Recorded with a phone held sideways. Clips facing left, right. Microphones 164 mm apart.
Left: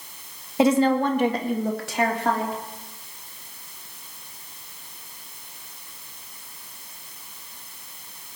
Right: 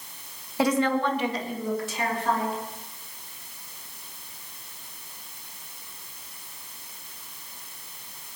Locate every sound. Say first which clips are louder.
0.6 s a woman speaking: left 5 dB; 20° left (ahead or behind), 1.5 m; by 2.6 s 80° left, 3 m